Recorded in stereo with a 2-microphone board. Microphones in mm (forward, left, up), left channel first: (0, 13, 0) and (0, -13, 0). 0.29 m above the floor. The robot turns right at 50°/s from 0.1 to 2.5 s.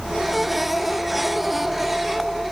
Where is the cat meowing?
I don't hear a cat meowing.